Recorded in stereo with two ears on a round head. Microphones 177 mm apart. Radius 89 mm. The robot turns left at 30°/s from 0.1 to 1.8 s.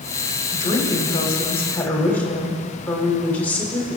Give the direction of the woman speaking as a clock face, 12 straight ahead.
10 o'clock.